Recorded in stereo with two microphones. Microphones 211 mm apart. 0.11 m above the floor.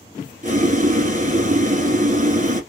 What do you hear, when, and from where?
0.4 s boiling: 35° right (ahead or behind), 0.9 m